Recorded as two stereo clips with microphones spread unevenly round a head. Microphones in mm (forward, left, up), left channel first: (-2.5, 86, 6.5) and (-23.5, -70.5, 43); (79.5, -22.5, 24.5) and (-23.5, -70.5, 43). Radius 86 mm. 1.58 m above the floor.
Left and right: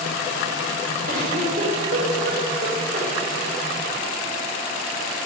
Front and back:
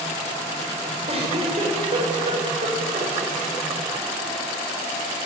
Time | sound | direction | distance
1.1 | a giggle | 125° right | 7 m